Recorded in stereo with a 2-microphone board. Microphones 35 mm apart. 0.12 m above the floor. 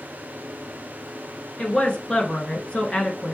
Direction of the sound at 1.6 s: 30° left (ahead or behind).